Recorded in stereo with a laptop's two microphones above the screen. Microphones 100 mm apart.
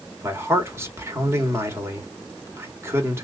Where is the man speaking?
25° right (ahead or behind), 2.5 m.